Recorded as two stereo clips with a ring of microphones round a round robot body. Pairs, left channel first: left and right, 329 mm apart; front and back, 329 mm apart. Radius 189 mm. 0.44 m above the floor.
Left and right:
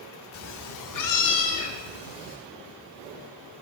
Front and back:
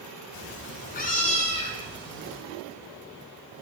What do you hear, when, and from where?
0.3 s a cat meowing: 45° left, 0.8 m; by 2.4 s 80° left, 3 m